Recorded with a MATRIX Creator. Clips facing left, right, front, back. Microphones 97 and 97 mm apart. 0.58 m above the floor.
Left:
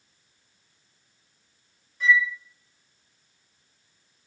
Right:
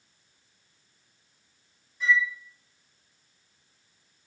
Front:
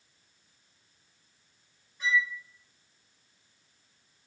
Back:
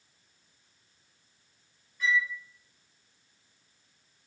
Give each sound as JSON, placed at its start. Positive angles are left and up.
{"t": 2.0, "sound": "a flute", "azimuth_deg": 60, "distance_m": 2.5}